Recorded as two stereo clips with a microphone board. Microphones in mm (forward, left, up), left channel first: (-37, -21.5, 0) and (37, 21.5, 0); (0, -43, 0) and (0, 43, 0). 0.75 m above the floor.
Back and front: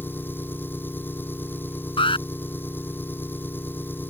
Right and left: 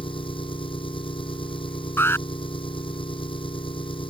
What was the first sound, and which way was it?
An engine running, 85° right.